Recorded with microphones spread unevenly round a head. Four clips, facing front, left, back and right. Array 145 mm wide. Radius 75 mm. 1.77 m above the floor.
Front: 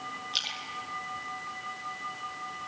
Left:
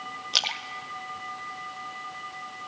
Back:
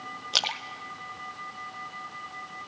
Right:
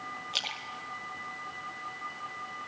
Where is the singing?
No singing in this recording.